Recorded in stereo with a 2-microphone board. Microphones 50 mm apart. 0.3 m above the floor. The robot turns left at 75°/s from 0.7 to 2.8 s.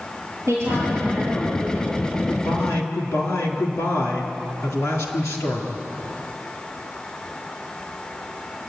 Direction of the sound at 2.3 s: 145° left.